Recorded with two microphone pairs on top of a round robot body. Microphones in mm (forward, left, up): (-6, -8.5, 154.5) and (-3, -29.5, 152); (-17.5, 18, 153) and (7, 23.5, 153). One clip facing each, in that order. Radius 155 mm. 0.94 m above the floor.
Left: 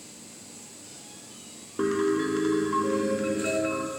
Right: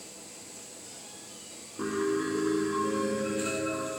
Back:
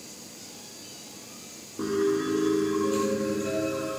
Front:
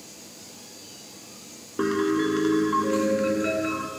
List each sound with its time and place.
1.8 s a piano: 45° left, 1.2 m